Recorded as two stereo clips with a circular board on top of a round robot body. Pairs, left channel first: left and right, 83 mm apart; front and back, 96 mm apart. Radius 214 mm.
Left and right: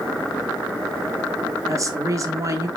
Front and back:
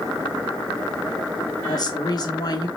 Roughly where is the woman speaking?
Ahead right.